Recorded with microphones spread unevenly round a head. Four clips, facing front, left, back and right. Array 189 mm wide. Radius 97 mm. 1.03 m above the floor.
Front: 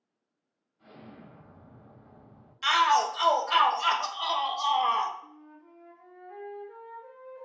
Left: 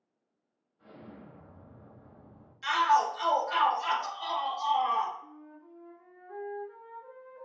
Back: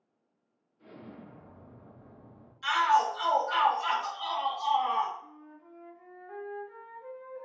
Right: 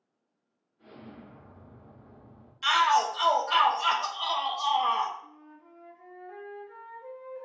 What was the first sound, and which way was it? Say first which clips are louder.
An explosion: right 2 dB, back 1 dB; 125° left.